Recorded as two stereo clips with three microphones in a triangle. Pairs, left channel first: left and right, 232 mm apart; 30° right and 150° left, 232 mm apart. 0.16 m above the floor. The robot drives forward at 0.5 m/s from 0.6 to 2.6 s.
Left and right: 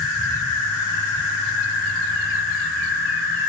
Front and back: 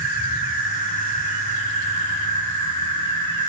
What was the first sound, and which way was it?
An insect, 85° right.